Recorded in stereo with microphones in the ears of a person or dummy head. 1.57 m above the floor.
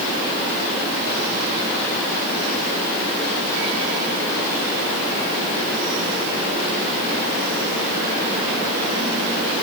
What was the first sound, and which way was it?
Only background noise.